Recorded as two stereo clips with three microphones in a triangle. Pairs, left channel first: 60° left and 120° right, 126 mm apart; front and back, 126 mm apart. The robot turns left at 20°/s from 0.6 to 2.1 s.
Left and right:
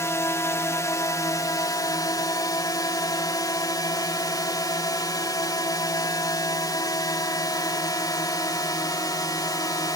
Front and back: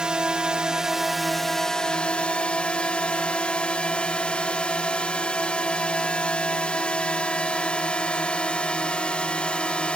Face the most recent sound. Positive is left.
turn(degrees=75)